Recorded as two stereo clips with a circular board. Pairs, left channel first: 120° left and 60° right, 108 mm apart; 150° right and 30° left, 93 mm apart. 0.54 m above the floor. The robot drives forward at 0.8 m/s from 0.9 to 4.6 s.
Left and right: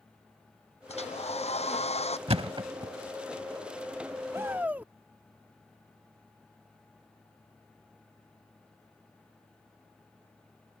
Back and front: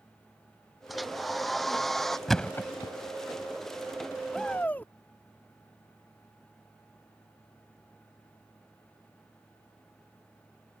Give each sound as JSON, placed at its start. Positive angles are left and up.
{"t": 0.9, "sound": "a hair dryer", "azimuth_deg": 120}
{"t": 2.3, "sound": "a thud", "azimuth_deg": -60}
{"t": 4.3, "sound": "a shout", "azimuth_deg": -65}